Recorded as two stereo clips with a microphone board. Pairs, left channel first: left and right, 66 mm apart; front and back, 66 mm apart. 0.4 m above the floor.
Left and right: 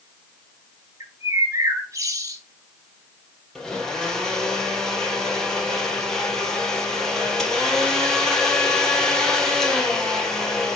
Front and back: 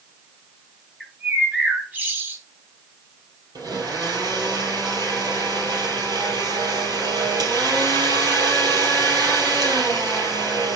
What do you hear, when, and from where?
1.0 s a bird: 125° right, 2.5 m
3.5 s a blender: 170° left, 3.5 m